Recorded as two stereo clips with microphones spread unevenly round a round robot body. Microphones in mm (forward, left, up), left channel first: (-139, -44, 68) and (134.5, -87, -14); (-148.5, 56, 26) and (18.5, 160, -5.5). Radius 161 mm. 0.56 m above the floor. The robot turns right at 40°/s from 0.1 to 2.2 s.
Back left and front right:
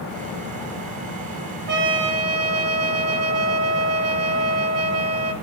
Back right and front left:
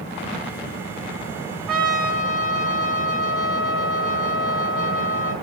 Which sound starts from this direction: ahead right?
A trumpet, at 1.7 s.